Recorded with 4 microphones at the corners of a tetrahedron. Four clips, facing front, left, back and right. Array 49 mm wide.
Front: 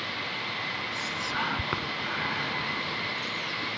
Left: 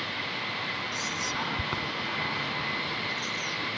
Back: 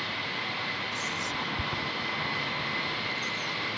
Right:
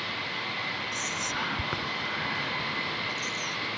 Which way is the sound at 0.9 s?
10° right.